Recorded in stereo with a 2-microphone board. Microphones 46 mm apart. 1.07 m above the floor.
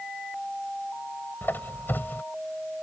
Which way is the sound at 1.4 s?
55° left (ahead or behind).